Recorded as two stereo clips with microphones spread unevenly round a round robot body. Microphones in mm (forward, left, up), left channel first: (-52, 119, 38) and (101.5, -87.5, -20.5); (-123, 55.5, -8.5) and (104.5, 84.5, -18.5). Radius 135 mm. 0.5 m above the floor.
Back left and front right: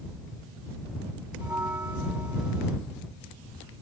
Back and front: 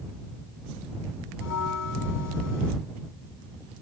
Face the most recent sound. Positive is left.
turn(degrees=-135)